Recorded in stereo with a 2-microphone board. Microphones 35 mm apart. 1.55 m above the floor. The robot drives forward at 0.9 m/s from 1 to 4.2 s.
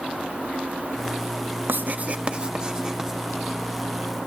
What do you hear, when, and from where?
1.7 s writing: 65° right (ahead or behind), 0.5 m; by 3.2 s 15° right (ahead or behind), 1.6 m